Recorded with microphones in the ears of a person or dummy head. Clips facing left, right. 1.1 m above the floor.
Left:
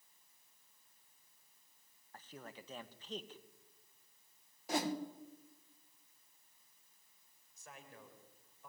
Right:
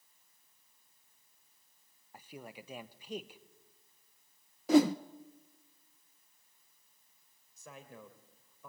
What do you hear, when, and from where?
2.1 s a man speaking: 10° right (ahead or behind), 1.0 m
4.7 s a whoosh: 55° right (ahead or behind), 0.8 m
7.6 s a man speaking: 70° right (ahead or behind), 4 m